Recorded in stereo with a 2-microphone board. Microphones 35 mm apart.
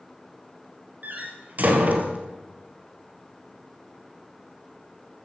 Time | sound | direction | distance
1.0 | a door slam | 55° right (ahead or behind) | 2 m